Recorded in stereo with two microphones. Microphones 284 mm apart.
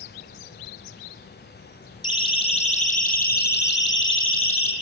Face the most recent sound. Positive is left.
turn(degrees=55)  # may be behind; listen again after turning